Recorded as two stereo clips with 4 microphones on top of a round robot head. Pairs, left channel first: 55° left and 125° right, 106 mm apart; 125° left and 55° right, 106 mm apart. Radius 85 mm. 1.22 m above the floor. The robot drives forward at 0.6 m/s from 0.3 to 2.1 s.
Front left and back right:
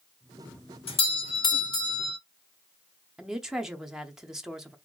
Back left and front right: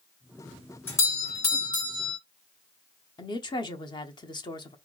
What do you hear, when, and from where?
0.9 s a doorbell: 65° left, 1.2 m; by 2.2 s 105° left, 1.1 m
3.2 s a woman speaking: 150° left, 0.6 m